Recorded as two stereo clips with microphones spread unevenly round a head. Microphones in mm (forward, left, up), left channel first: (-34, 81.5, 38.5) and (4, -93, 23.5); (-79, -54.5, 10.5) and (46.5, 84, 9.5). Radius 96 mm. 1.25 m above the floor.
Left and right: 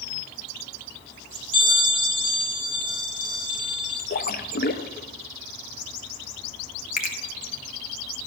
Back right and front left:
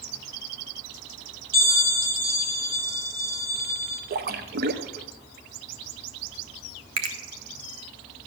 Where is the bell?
75° left, 2.5 m.